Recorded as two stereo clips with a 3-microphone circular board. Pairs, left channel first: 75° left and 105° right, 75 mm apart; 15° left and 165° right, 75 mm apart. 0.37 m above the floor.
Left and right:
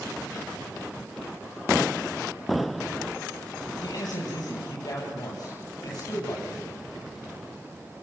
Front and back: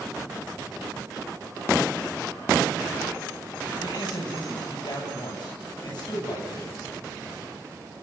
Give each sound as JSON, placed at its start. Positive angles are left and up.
{"t": 3.8, "sound": "a man speaking", "azimuth_deg": 40, "distance_m": 10.0}